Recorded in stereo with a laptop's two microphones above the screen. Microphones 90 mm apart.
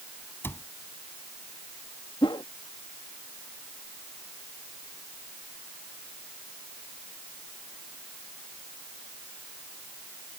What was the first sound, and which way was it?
A cupboard door, 25° left (ahead or behind).